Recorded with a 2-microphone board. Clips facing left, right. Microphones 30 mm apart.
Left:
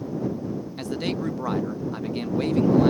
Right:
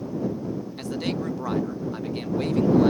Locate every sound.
0.8 s a man speaking: 5° left (ahead or behind)